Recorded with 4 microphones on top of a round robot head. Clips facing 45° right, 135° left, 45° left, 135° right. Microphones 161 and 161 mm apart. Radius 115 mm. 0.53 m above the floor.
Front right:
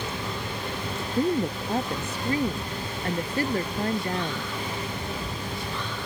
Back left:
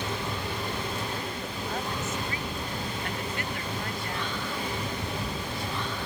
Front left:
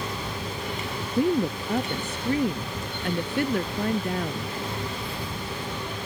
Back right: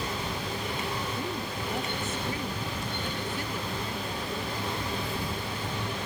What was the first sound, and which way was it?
A woman speaking, 15° left.